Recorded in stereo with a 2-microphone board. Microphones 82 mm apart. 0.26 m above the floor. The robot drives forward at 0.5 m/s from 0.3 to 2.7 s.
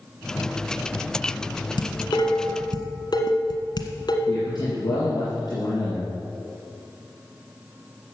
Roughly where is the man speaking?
Left.